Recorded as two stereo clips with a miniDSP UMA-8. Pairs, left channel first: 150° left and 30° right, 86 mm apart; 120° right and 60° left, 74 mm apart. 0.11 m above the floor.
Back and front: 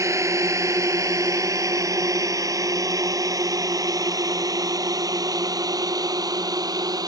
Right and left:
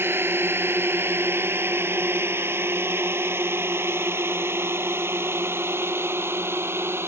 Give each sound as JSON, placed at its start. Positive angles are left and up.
{"t": 0.0, "sound": "a drone", "azimuth_deg": 10}